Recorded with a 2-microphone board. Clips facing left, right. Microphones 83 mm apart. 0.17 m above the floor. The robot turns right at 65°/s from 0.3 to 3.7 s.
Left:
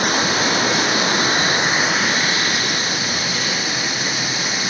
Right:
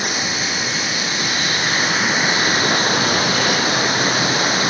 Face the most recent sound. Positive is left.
turn(degrees=-70)